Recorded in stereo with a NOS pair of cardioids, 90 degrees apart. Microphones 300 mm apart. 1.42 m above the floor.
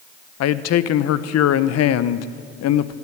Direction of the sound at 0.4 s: 65° left.